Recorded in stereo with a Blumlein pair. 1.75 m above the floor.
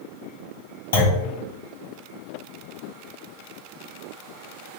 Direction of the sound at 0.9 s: 65° left.